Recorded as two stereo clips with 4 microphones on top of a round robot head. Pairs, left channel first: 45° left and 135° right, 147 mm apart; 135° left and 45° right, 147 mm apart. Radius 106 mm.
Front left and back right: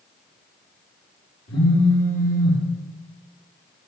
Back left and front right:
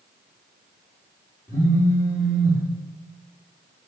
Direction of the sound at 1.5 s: 55° left.